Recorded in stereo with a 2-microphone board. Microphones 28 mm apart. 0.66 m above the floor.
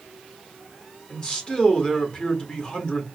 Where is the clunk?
No clunk in this recording.